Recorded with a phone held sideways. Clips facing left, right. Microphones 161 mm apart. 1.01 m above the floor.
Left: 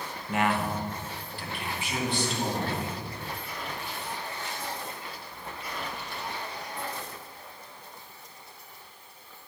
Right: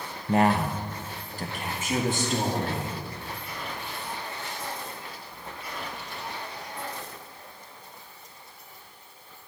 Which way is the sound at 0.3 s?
35° right (ahead or behind).